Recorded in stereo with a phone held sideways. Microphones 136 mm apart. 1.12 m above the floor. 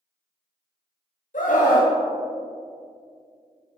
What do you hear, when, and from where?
1.3 s a scream: 80° left, 1.5 m